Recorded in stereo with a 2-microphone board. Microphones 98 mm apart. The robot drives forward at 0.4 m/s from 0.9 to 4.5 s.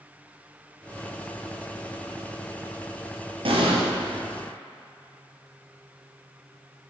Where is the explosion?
70° right (ahead or behind), 1.5 m.